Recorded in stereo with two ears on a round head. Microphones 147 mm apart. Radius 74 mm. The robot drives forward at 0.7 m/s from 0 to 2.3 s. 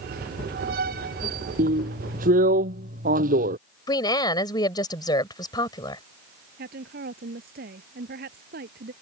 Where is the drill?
55° right (ahead or behind).